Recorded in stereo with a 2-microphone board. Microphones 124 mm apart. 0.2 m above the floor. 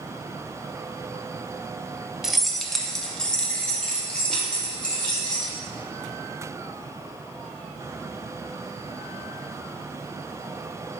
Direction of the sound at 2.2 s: 5° right (ahead or behind).